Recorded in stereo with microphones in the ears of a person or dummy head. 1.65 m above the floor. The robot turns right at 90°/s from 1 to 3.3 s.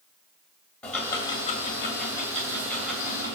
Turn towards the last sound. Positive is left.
turn(degrees=-145)